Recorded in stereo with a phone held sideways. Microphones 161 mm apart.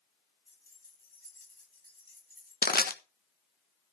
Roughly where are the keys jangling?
Right.